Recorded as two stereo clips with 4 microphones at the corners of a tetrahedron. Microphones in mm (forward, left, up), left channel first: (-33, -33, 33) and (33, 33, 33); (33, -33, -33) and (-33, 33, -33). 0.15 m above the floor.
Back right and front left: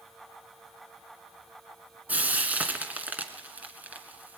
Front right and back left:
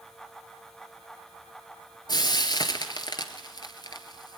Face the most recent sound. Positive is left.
turn(degrees=-25)